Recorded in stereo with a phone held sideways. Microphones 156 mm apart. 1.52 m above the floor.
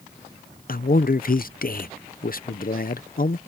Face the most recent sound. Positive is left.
turn(degrees=65)  # may be behind; listen again after turning